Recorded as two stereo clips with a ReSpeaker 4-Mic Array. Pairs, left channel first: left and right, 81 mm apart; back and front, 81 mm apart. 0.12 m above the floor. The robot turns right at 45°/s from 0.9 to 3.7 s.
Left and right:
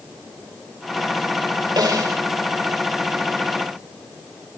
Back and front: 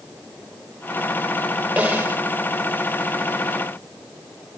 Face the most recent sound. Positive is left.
turn(degrees=25)